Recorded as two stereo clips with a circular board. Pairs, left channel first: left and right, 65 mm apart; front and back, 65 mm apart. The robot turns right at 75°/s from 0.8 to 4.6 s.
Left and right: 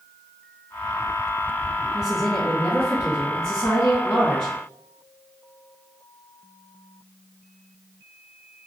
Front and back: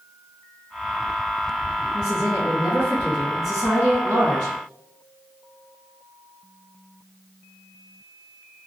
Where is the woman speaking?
15° right, 1.5 m; by 4.5 s straight behind, 1.5 m.